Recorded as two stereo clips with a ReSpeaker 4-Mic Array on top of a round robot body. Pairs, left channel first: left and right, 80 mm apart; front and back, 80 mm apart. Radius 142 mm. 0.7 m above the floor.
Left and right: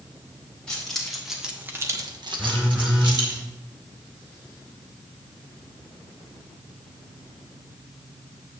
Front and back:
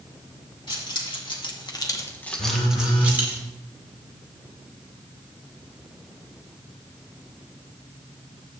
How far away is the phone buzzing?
About 1.0 m.